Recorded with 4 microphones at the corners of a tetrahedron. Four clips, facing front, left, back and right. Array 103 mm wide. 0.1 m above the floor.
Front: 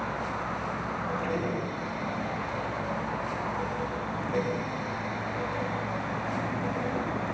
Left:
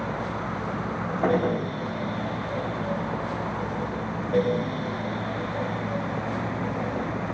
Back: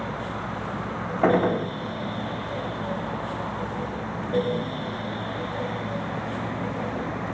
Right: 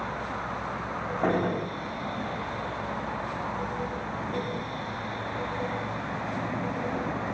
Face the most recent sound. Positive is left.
turn(degrees=170)